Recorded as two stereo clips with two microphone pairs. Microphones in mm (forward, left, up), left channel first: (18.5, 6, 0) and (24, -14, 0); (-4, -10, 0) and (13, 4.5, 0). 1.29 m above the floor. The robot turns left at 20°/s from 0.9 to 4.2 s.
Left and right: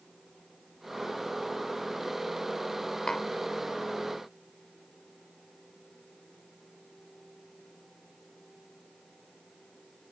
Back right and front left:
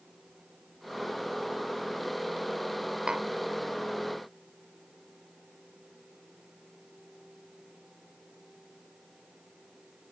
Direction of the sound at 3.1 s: 65° left.